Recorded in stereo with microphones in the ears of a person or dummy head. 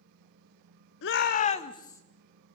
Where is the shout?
70° left (ahead or behind), 1.1 m; by 2.0 s 10° left (ahead or behind), 1.4 m.